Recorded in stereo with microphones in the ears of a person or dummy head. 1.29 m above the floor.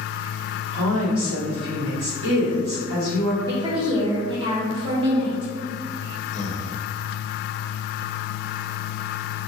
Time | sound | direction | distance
0.7 | a woman speaking | 60° right (ahead or behind) | 1.5 m
3.5 | a woman speaking | 20° right (ahead or behind) | 0.7 m
6.3 | breathing | 40° left (ahead or behind) | 0.5 m